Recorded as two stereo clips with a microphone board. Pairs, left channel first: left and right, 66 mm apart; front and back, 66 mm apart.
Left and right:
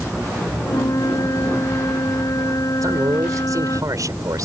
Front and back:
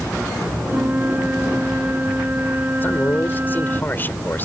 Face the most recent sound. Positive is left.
turn(degrees=-60)